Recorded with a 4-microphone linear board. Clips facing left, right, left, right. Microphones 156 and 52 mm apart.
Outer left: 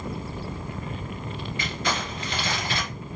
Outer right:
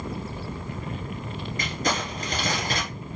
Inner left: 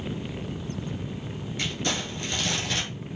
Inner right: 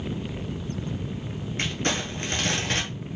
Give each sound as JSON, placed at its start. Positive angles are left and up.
{"t": 1.6, "sound": "crumpling", "side_deg": -45, "distance_m": 1.6}